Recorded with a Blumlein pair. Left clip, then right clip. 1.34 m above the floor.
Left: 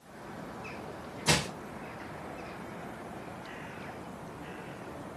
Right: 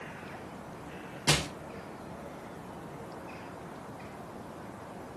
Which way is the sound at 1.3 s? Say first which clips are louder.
Even; 10° right.